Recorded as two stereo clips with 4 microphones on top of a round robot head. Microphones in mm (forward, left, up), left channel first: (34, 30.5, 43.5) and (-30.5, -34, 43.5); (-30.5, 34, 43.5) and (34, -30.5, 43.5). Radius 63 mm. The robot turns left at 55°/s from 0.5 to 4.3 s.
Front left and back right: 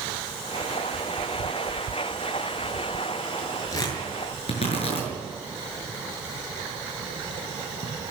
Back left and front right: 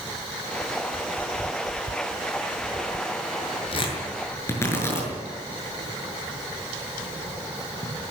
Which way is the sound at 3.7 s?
105° left.